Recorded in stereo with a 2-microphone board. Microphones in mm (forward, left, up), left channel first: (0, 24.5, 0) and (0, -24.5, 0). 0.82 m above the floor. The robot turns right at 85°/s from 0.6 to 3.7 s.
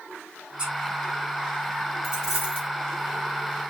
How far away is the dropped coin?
About 5 m.